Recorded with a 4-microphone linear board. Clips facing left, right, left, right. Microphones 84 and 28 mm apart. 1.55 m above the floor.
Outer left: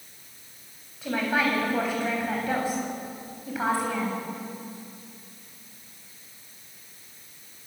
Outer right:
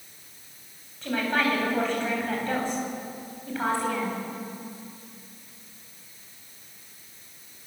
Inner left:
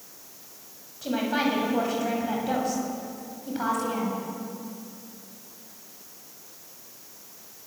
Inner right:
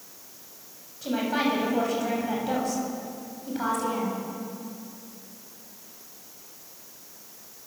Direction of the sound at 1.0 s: 10° left (ahead or behind).